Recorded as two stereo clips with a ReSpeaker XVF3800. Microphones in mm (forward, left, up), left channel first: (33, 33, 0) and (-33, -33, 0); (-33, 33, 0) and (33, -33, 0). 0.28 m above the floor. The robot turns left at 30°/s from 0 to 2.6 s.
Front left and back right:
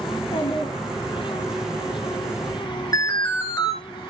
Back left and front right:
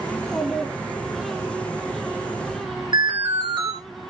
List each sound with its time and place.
0.1 s a child speaking: 55° left, 1.6 m; by 1.5 s 15° left, 1.6 m
2.9 s an alarm: 5° right, 2.5 m